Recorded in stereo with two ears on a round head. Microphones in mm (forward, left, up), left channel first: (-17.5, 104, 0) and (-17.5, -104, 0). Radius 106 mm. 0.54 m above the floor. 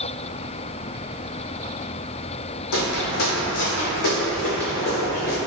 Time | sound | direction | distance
2.7 | footsteps | 65° left (ahead or behind) | 1.2 m